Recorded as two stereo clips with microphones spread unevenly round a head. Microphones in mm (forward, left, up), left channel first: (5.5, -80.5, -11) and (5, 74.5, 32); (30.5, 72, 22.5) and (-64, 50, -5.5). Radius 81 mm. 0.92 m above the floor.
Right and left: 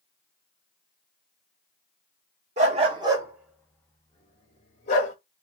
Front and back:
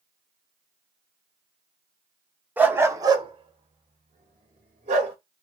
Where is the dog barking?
110° left, 0.7 m; by 5.2 s 140° right, 1.1 m.